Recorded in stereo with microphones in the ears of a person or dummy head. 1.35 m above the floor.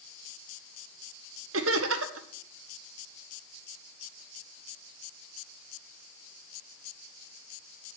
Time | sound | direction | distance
1.5 | laughter | 70° right (ahead or behind) | 1.1 m